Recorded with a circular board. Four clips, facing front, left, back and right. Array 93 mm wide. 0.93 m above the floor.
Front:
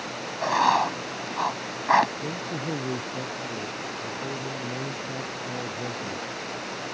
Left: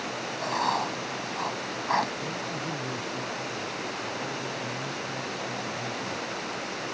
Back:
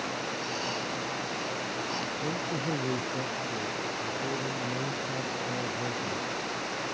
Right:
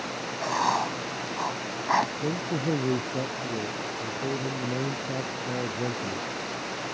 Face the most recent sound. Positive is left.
turn(degrees=-85)